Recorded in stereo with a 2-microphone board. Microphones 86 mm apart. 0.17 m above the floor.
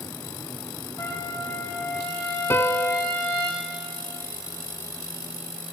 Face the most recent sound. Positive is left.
turn(degrees=30)  # may be behind; listen again after turning